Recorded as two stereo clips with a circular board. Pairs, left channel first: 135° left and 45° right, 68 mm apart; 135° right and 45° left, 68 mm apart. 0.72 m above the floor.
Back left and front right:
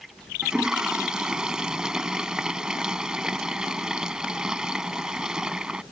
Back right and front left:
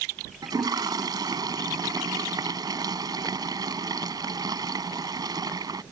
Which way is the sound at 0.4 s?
35° left.